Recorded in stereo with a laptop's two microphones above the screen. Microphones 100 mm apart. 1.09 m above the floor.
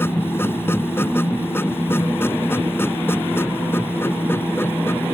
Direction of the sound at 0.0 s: 25° left (ahead or behind).